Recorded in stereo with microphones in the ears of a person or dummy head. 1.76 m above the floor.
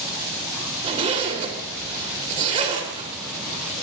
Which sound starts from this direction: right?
A zipper, at 0.8 s.